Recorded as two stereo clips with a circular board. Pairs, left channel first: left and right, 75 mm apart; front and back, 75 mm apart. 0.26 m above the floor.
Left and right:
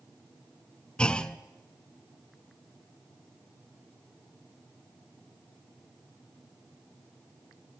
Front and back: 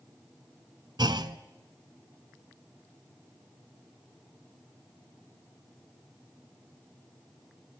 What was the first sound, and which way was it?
A clunk, 165° left.